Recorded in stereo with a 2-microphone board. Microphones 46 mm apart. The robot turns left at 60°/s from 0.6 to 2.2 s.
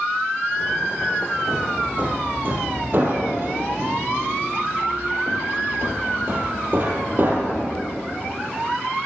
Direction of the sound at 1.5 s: Centre (ahead or behind).